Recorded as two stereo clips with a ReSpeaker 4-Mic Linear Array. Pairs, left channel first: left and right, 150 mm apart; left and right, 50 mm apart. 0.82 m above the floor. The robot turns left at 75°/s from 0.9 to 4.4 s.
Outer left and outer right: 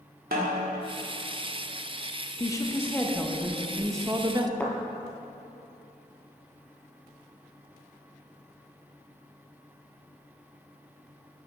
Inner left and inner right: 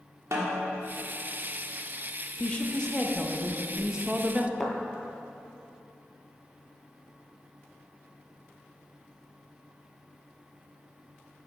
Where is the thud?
10° left (ahead or behind), 0.8 m.